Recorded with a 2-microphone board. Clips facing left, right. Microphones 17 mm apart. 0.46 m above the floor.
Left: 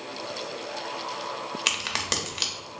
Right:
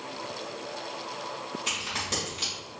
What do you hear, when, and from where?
1.7 s a crack: 65° left (ahead or behind), 0.9 m